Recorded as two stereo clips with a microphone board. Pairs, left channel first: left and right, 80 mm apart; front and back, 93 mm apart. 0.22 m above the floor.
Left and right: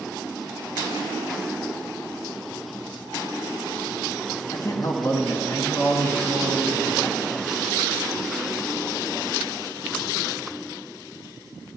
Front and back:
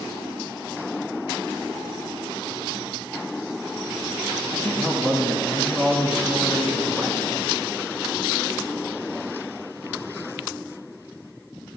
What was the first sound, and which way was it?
A man speaking, 70° left.